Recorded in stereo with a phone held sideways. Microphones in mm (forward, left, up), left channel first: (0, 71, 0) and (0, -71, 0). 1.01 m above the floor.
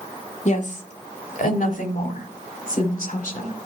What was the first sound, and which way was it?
A woman speaking, 55° left (ahead or behind).